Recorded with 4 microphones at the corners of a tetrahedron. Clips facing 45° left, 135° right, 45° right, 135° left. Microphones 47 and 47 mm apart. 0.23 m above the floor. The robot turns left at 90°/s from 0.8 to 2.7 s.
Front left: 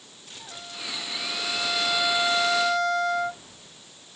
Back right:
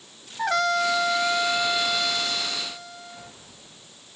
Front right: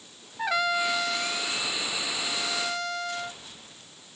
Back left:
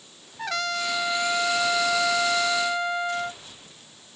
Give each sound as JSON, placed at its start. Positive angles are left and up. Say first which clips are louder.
{"t": 0.4, "sound": "a trumpet", "louder": "back right 18 dB, front right 3 dB", "azimuth_deg": -125}